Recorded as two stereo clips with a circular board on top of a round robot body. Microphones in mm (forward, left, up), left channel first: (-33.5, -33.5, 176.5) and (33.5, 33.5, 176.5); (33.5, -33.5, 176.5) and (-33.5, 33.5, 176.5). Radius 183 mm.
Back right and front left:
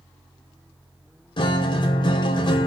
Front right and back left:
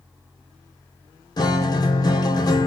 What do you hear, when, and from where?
1.4 s a guitar: 95° right, 0.9 m